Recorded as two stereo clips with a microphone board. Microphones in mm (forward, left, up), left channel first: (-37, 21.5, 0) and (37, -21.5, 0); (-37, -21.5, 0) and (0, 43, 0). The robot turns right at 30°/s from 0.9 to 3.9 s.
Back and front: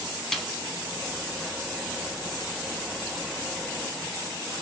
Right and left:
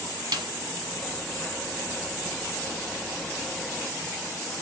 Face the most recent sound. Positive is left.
turn(degrees=150)